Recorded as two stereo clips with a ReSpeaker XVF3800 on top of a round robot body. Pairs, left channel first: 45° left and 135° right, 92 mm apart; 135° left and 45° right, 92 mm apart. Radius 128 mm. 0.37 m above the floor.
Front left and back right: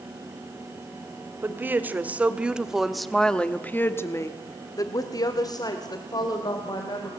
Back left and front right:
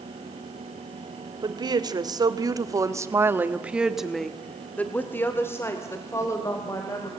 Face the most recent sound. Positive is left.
turn(degrees=85)